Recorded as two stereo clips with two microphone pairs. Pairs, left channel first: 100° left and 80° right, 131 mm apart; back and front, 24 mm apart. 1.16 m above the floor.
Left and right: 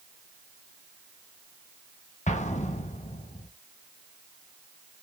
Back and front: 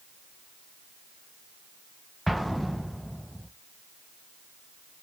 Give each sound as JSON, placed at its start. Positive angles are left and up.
{"t": 2.3, "sound": "an explosion", "azimuth_deg": 95, "distance_m": 1.0}